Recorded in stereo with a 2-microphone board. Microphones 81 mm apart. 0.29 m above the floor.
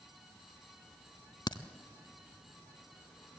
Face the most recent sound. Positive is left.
turn(degrees=65)  # may be behind; listen again after turning